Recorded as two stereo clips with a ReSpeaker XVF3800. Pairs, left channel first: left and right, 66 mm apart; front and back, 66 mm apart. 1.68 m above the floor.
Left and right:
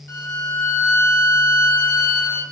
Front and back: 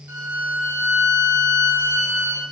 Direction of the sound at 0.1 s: 135° left.